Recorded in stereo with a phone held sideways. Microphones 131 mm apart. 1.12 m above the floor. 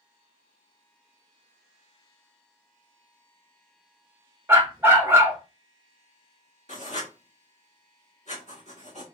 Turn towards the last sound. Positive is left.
turn(degrees=55)  # may be behind; listen again after turning